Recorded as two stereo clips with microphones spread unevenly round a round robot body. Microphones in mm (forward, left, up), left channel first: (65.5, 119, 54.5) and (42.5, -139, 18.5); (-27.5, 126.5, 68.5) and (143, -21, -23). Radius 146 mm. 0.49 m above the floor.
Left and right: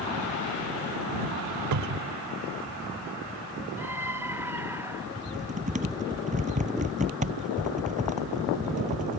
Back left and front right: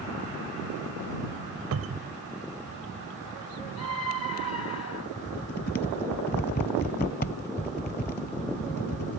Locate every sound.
1.7 s a cupboard door: 80° right
3.8 s a scream: straight behind
5.2 s typing on a keyboard: 165° right